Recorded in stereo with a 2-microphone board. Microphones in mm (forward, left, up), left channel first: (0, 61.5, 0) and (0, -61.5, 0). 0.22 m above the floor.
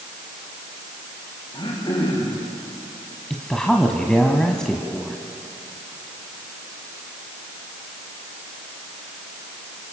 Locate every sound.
1.5 s throat clearing: 40° left (ahead or behind), 8 m
3.3 s a woman speaking: 5° left (ahead or behind), 1.7 m